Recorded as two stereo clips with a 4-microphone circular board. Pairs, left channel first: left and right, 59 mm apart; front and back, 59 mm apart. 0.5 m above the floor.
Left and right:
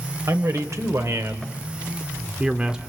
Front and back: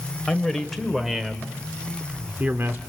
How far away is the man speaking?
About 2.5 m.